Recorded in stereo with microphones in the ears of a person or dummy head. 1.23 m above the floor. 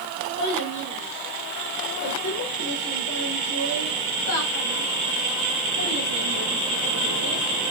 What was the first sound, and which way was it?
A child speaking, 35° left (ahead or behind).